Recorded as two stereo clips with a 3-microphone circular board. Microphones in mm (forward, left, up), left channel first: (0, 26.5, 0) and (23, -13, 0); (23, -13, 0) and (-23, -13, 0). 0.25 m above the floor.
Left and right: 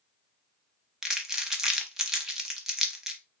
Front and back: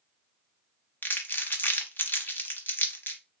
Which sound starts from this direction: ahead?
Crumpling, at 1.0 s.